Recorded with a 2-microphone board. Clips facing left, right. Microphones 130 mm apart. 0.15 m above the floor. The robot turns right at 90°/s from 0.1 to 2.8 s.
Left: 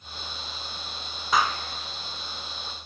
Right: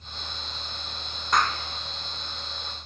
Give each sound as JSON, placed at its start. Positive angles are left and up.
{"t": 1.3, "sound": "a clap", "side_deg": 5, "distance_m": 1.1}